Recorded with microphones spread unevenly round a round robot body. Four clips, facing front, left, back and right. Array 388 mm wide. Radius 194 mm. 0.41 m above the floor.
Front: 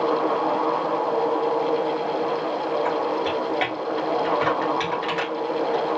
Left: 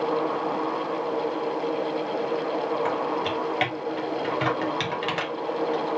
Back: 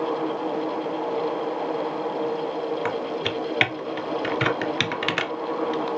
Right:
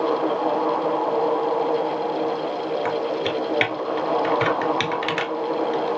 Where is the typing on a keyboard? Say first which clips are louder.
Right 2 dB, front 4 dB; 170° right, 1.3 m.